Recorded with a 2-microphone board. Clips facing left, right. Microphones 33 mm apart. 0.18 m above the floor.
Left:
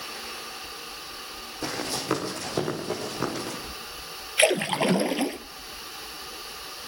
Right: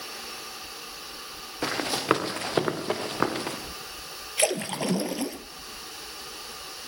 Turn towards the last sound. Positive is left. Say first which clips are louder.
# left 5 dB
turn(degrees=35)  # may be behind; listen again after turning